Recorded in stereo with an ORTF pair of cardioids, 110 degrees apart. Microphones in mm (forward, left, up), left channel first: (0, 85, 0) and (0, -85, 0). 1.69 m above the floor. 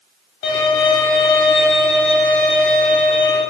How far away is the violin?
About 1.2 m.